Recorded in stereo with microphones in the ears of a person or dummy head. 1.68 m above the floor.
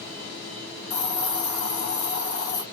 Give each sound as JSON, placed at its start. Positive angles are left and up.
{"t": 0.9, "sound": "a hiss", "side_deg": 70, "distance_m": 0.9}